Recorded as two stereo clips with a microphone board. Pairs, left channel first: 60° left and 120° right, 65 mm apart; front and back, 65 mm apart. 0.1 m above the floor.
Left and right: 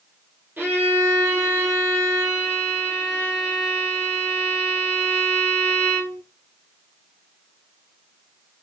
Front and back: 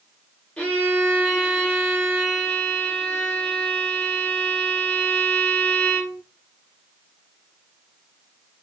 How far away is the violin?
About 1.7 m.